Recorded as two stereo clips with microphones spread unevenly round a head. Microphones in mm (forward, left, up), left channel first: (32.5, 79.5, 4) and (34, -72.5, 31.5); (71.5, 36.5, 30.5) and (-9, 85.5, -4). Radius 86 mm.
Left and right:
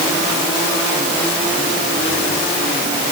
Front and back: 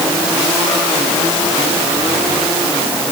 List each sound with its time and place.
Only background noise.